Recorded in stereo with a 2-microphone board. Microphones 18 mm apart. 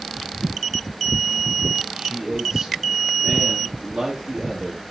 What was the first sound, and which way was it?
A man speaking, 45° right (ahead or behind).